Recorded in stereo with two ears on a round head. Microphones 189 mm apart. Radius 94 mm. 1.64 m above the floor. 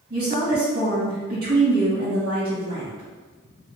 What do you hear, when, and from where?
0.1 s a woman speaking: 50° right (ahead or behind), 1.4 m